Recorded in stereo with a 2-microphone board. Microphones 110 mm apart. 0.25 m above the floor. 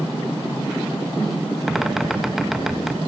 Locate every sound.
1.7 s a bird: 5° right (ahead or behind), 1.7 m